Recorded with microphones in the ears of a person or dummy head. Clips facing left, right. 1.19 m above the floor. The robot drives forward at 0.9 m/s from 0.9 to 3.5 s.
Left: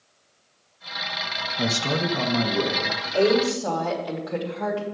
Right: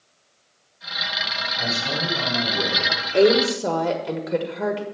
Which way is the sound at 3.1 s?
45° right (ahead or behind).